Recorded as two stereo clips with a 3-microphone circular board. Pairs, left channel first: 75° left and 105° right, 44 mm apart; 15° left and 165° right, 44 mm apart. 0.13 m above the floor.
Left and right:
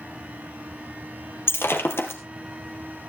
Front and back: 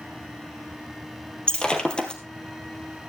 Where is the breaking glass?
80° left, 2 m.